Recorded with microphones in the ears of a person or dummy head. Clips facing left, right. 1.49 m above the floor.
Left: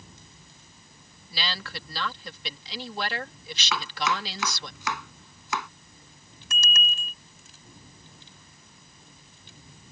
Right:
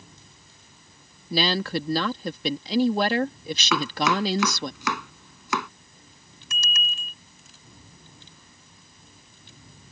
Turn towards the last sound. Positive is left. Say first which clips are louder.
# left 2 dB
turn(degrees=55)  # may be behind; listen again after turning